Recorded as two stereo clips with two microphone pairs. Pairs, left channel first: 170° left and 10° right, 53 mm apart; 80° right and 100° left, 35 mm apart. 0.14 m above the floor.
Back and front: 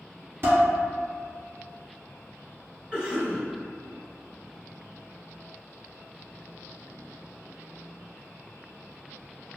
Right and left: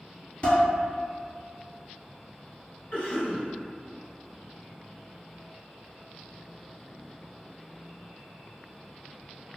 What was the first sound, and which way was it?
Dishes clattering, 40° right.